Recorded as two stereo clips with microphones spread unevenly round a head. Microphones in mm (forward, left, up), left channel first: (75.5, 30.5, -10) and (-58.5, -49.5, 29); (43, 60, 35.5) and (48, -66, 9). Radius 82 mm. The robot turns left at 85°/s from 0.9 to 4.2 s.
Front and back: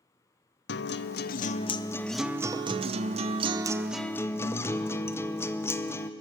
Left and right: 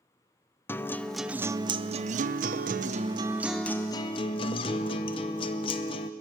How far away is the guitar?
About 0.8 m.